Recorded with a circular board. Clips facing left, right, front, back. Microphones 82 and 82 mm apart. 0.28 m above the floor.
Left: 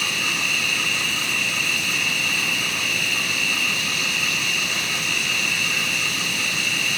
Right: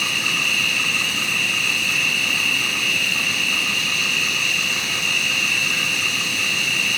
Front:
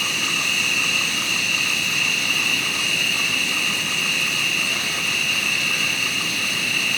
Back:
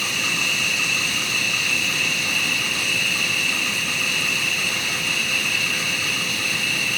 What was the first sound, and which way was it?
An insect, 20° left.